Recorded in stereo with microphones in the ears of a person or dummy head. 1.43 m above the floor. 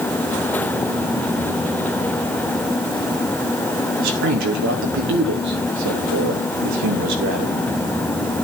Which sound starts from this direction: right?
A man speaking, at 4.0 s.